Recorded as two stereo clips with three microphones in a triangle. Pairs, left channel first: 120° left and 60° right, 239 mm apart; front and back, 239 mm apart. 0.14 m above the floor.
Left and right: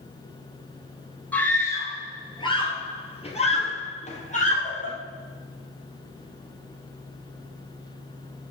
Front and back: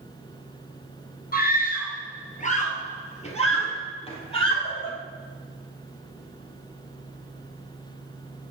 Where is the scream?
40° left, 2.0 m; by 4.9 s 65° left, 4 m.